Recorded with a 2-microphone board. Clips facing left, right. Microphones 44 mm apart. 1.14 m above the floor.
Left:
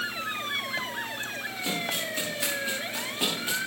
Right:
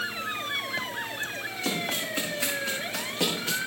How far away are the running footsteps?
About 9.5 m.